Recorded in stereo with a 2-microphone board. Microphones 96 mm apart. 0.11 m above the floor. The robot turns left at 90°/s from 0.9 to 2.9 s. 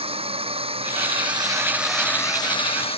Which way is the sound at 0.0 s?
85° right.